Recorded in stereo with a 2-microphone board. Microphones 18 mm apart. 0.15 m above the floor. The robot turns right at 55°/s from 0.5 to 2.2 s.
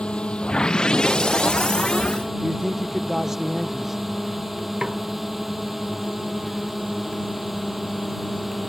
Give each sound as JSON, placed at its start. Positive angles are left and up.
{"t": 0.0, "sound": "a drone", "azimuth_deg": 100}
{"t": 2.4, "sound": "a man speaking", "side_deg": -20}
{"t": 4.8, "sound": "a snare drum", "side_deg": -40}